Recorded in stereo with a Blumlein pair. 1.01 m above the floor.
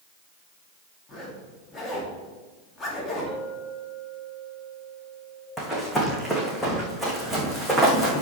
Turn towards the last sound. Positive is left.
turn(degrees=5)